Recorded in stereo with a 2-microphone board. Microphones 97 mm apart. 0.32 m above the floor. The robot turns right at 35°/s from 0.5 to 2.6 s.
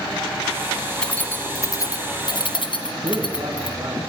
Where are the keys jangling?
10° left (ahead or behind), 2.0 m; by 3.8 s 60° left (ahead or behind), 2.0 m.